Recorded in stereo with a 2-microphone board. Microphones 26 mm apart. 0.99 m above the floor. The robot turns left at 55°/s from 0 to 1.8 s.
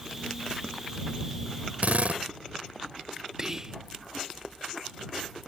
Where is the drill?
70° right (ahead or behind).